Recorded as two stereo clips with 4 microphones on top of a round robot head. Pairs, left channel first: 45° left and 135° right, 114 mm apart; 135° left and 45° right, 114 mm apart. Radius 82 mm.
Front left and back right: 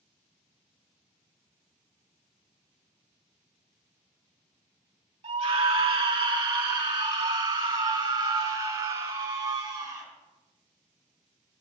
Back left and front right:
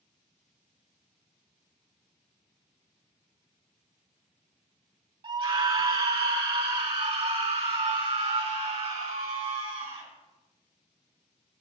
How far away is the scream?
About 2 m.